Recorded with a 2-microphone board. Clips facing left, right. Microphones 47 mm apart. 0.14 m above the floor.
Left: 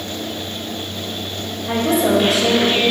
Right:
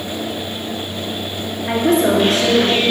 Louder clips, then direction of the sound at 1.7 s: Right 2 dB; 50° right (ahead or behind).